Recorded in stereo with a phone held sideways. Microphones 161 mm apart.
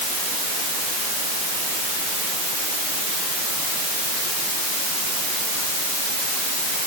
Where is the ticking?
No ticking in this recording.